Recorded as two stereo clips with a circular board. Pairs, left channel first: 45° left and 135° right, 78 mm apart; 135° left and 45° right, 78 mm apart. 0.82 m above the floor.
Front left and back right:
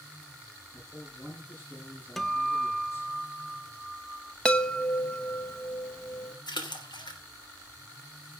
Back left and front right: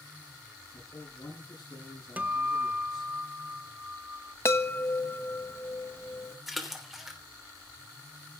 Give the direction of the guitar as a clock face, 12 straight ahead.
1 o'clock.